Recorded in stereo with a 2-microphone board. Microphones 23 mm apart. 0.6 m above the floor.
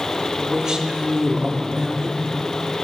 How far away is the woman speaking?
About 1.0 m.